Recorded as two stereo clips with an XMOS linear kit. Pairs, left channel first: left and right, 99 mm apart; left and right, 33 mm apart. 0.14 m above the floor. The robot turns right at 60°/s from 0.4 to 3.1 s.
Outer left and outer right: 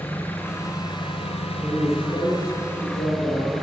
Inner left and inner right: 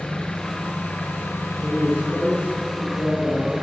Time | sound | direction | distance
0.0 | an engine running | 15° left | 3.5 m
1.6 | a man speaking | 10° left | 10 m